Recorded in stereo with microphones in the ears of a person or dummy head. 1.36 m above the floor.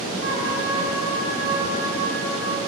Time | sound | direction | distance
0.2 | a trumpet | 70° right (ahead or behind) | 1.8 m